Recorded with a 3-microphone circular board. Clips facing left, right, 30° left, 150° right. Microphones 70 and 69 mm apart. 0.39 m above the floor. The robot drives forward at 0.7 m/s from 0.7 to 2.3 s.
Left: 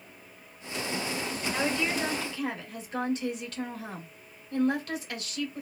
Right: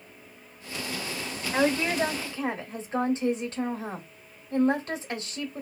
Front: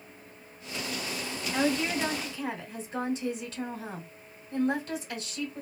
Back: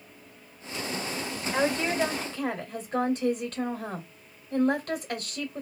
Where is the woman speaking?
120° right, 1.2 m; by 5.6 s 140° right, 1.5 m.